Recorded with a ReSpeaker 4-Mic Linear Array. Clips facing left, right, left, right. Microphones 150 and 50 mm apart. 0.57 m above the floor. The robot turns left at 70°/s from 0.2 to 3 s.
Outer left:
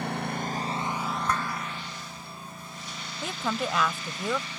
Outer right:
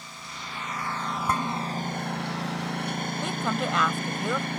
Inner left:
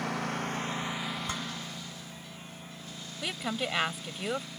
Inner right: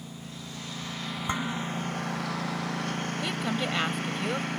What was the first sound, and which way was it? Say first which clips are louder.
A lawn mower: outer left 12 dB, inner left 10 dB; 65° left (ahead or behind).